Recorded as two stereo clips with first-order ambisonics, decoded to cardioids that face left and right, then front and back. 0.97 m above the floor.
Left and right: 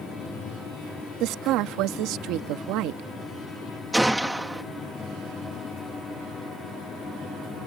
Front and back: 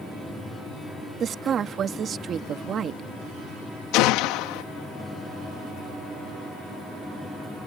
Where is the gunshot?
5° right.